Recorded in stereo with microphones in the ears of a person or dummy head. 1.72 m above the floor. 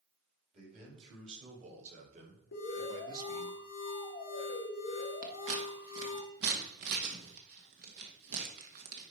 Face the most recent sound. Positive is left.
turn(degrees=-60)  # may be behind; listen again after turning